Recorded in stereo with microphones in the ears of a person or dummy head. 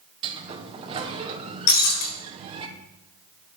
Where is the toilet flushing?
I don't hear a toilet flushing.